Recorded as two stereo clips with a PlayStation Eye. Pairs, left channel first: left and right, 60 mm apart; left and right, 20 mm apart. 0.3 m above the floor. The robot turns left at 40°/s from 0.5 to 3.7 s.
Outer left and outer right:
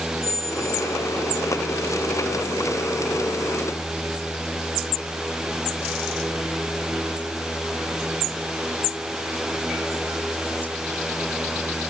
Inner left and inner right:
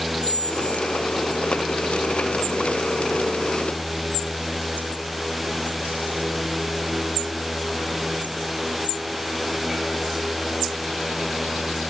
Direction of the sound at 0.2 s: 100° left.